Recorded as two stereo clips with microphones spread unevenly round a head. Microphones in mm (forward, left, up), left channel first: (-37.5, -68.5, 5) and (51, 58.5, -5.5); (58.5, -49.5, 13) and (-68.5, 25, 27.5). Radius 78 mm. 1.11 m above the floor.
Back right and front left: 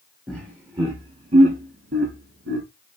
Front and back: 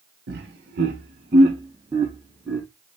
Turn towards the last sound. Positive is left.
turn(degrees=60)